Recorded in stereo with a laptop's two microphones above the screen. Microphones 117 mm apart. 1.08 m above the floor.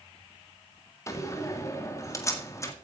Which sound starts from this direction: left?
A door slam, at 1.1 s.